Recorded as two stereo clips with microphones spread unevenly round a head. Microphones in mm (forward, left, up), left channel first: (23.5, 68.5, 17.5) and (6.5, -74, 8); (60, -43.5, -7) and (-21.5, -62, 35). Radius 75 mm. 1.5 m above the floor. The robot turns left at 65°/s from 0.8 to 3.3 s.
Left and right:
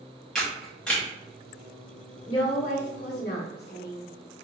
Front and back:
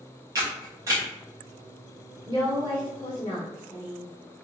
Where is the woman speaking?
145° left, 1.0 m; by 4.0 s 75° left, 1.0 m.